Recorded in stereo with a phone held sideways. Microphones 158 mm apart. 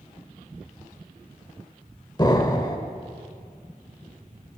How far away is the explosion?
About 1.2 m.